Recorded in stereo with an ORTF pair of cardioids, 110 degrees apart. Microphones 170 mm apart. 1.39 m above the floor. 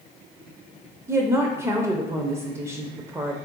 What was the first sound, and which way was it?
A woman speaking, 15° right.